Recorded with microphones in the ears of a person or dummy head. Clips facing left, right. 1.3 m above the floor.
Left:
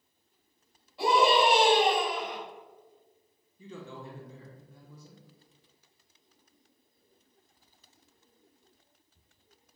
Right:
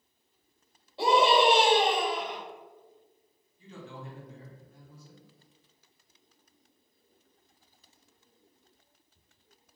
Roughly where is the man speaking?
Left.